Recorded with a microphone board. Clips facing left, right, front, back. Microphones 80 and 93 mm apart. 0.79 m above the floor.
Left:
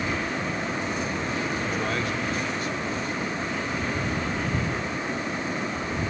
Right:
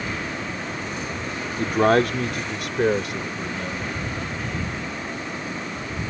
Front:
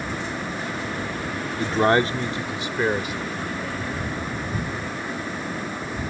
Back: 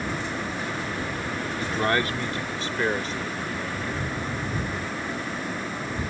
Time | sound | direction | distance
1.6 | a man speaking | 50° right | ?